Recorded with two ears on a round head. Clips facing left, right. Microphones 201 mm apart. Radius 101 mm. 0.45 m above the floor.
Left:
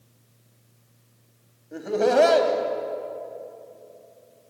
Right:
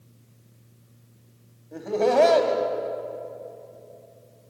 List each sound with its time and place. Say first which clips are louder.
1.7 s laughter: left 1 dB; 10° left (ahead or behind), 3 m